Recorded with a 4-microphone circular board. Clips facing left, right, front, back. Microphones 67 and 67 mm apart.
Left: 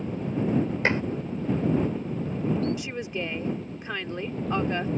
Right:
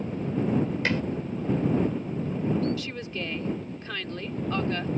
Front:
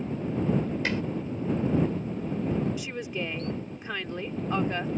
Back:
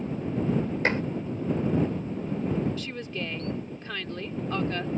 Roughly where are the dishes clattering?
Behind left.